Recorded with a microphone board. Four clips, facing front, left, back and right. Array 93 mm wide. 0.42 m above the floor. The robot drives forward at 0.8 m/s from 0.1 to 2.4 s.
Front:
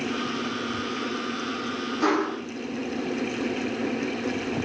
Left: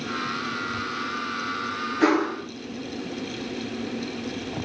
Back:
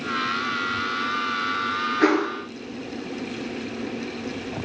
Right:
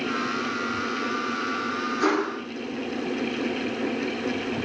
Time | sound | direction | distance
2.0 | a whoosh | 155° left | 2 m